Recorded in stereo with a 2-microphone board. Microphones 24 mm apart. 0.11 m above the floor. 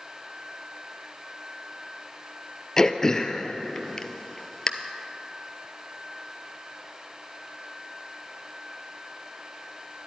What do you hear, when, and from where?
2.8 s throat clearing: 25° left (ahead or behind), 0.6 m